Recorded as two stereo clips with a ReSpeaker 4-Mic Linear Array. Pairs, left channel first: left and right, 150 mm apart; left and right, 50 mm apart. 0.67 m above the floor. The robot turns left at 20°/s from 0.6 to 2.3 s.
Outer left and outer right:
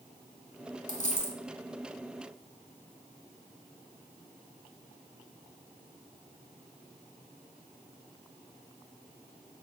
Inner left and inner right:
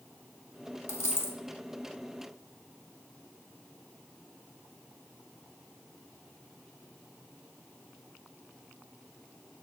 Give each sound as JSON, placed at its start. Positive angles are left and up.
{"t": 0.9, "sound": "a dropped coin", "side_deg": 55, "distance_m": 1.5}